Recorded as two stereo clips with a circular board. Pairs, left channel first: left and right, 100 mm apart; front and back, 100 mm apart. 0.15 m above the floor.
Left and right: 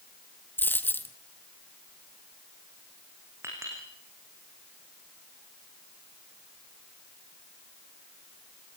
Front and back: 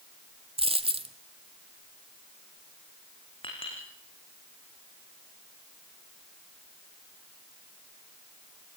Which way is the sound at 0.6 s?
160° left.